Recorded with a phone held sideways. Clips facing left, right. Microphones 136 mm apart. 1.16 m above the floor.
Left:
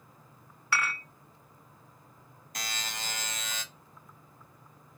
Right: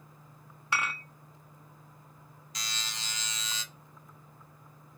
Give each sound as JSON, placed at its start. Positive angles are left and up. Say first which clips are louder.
{"t": 0.7, "sound": "dishes clattering", "louder": "left 1 dB", "side_deg": -20, "distance_m": 1.2}
{"t": 2.5, "sound": "a buzzer", "louder": "left 4 dB", "side_deg": 55, "distance_m": 0.7}